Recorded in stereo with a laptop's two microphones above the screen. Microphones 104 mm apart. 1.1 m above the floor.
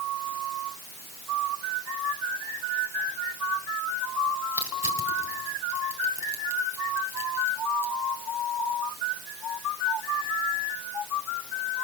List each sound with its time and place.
4.5 s crushing: 30° right (ahead or behind), 3.5 m